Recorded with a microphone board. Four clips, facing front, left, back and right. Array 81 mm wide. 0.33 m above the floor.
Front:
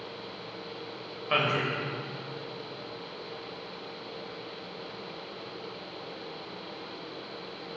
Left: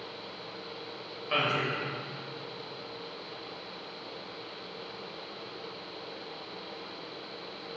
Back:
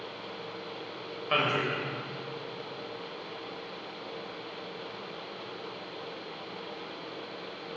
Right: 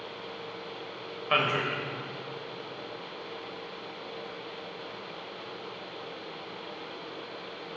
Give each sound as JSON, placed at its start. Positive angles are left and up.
{"t": 1.3, "sound": "a man speaking", "azimuth_deg": -90, "distance_m": 0.9}